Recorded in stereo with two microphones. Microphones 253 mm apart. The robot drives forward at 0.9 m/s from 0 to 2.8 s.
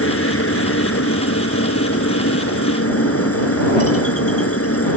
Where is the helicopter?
55° left (ahead or behind); by 5.0 s 60° left (ahead or behind).